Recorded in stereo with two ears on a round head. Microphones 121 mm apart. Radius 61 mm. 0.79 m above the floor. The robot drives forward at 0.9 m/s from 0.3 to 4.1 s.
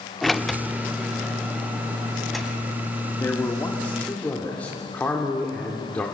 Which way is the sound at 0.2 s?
Centre (ahead or behind).